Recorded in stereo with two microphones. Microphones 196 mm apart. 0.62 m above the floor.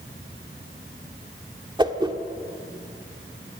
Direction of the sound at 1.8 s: 25° right (ahead or behind).